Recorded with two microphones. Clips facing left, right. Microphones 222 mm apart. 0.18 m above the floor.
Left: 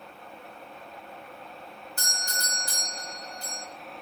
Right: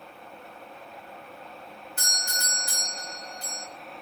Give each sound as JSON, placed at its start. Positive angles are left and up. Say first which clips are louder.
{"t": 2.0, "sound": "a doorbell", "louder": "left 1 dB", "side_deg": -25, "distance_m": 1.8}